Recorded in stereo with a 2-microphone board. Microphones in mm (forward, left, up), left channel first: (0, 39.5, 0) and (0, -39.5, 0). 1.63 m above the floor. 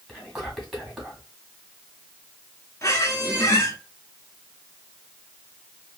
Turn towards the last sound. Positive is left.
turn(degrees=35)  # may be behind; listen again after turning